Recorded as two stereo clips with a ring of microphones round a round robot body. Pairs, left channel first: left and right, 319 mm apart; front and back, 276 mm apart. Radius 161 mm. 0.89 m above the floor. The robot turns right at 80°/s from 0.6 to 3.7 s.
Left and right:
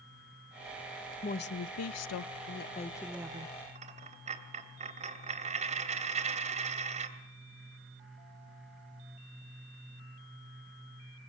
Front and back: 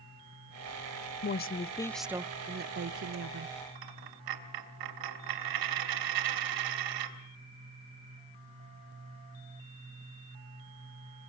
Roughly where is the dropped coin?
Behind.